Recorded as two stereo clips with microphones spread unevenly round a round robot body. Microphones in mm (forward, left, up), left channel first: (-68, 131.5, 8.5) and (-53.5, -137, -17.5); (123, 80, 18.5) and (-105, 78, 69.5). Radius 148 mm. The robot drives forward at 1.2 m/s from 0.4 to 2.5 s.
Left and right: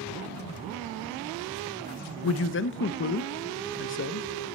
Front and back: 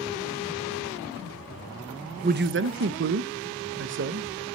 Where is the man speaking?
115° left, 0.6 m; by 4.3 s 140° left, 0.8 m.